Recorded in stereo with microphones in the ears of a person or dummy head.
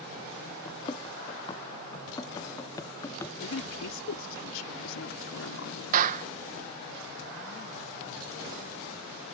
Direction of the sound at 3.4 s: 75° left (ahead or behind).